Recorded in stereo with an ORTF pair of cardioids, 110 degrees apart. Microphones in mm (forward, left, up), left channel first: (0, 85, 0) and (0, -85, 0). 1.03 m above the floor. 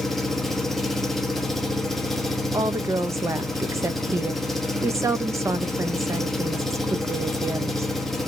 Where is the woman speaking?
15° right, 0.6 m.